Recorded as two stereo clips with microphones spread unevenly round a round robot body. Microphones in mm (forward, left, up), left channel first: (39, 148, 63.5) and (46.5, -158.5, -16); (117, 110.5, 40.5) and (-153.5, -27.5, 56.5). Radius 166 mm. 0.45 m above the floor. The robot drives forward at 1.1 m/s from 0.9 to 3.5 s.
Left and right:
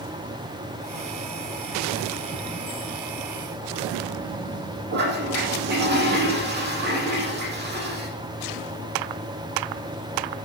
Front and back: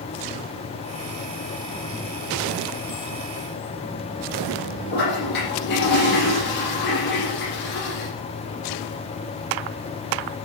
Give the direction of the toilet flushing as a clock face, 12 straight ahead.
1 o'clock.